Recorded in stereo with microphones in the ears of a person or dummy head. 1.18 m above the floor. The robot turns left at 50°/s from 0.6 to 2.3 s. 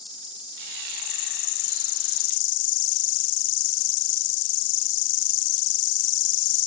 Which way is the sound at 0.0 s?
155° left.